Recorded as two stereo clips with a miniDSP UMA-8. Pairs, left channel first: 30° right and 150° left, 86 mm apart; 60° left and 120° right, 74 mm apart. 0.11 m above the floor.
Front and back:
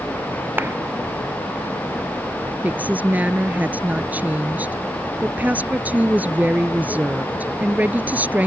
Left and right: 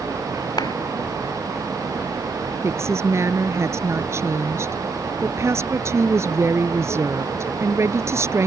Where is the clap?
85° left.